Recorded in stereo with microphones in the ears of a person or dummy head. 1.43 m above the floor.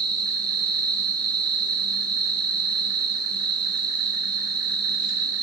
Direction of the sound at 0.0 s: 25° right (ahead or behind).